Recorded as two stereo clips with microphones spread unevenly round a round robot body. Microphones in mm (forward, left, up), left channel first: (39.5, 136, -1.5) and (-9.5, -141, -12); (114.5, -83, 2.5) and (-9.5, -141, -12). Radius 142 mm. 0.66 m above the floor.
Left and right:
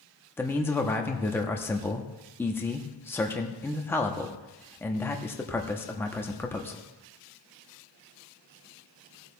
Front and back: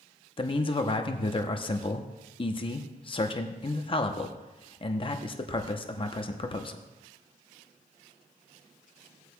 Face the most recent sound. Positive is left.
turn(degrees=0)